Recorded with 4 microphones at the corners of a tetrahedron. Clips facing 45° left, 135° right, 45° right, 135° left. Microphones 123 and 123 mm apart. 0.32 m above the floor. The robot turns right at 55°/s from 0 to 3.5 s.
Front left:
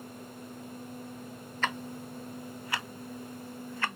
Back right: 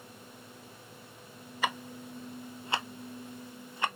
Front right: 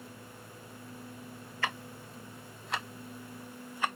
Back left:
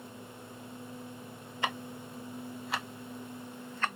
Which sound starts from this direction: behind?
Ticking, at 1.6 s.